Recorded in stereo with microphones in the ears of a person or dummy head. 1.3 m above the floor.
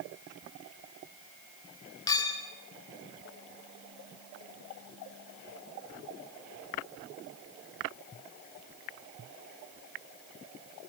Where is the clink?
20° left (ahead or behind), 3.5 m.